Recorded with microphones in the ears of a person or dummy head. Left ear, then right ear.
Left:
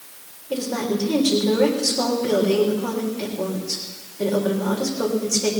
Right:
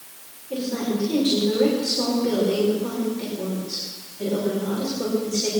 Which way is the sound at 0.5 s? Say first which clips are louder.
Left 2 dB; 40° left (ahead or behind).